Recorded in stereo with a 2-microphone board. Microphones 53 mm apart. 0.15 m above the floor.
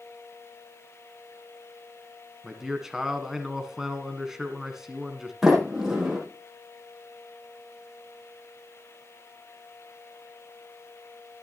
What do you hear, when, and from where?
2.4 s a man speaking: 10° right (ahead or behind), 1.4 m
5.4 s a sliding door: 10° right (ahead or behind), 5 m